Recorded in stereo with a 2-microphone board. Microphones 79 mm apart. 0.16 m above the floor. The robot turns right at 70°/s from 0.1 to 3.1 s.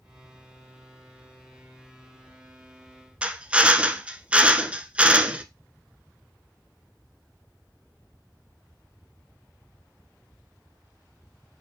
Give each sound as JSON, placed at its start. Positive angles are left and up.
{"t": 3.2, "sound": "a drill", "side_deg": -15, "distance_m": 0.8}